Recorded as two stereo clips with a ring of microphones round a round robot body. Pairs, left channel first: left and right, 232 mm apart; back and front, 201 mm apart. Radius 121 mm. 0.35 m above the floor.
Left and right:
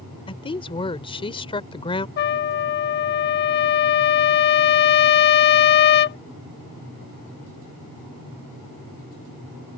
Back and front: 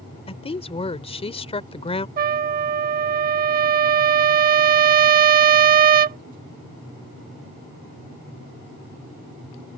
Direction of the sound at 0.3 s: 140° left.